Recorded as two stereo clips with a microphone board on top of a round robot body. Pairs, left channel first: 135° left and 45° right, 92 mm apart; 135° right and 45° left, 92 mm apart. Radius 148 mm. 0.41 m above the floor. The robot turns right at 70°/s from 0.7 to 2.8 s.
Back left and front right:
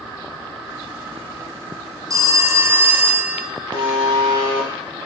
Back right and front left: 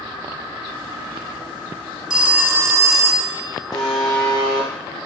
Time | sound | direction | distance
2.1 | a phone ringing | 30° right | 0.6 m
3.7 | a buzzer | 85° right | 1.0 m